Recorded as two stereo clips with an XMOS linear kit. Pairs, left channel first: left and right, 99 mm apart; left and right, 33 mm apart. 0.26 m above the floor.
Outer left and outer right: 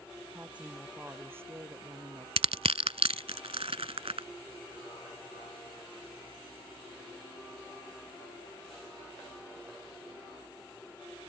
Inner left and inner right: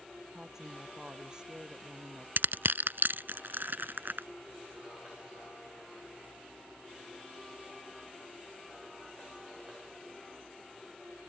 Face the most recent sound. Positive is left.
turn(degrees=-80)